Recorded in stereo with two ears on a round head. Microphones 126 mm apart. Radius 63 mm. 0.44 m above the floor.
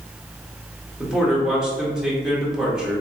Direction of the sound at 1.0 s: 5° right (ahead or behind).